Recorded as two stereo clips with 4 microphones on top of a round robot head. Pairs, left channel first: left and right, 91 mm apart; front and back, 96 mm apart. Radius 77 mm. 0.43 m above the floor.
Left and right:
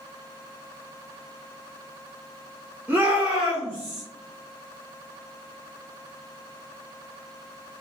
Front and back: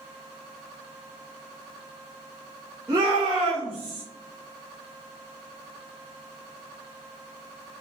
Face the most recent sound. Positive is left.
turn(degrees=160)